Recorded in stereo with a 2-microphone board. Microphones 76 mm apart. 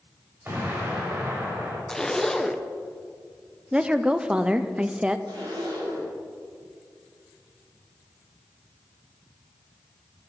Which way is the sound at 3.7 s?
15° right (ahead or behind).